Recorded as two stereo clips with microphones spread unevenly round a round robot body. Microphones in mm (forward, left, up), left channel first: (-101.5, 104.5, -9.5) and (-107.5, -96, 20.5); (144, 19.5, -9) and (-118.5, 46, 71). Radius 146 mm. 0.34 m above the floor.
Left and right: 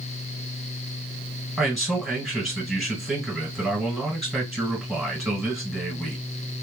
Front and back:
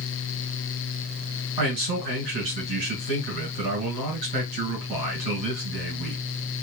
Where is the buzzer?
I don't hear a buzzer.